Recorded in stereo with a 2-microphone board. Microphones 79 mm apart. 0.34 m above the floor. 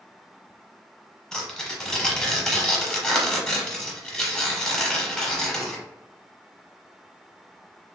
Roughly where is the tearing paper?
Centre.